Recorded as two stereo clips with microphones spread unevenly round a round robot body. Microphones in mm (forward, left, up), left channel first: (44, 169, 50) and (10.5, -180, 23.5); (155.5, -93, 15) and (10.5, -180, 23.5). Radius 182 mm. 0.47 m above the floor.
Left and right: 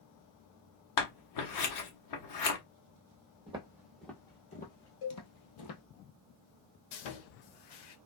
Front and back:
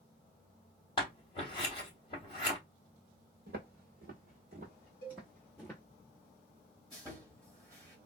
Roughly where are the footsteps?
Behind.